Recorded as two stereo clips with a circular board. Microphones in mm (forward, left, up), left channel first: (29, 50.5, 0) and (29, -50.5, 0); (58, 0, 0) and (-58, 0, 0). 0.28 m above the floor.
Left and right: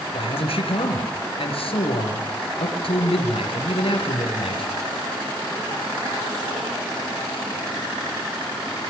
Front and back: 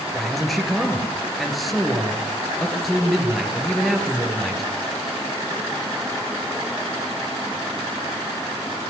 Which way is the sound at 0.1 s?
90° left.